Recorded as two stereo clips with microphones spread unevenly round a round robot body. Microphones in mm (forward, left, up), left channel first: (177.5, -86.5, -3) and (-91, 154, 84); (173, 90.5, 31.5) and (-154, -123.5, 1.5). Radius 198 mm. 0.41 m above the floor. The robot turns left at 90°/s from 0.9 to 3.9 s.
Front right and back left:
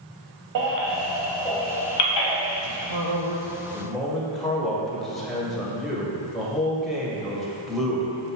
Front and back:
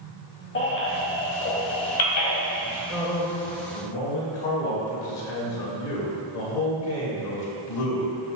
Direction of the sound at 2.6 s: 155° left.